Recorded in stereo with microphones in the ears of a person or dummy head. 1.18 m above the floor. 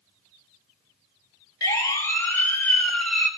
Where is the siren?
20° left (ahead or behind), 4 m; by 3.3 s 5° left (ahead or behind), 4.5 m.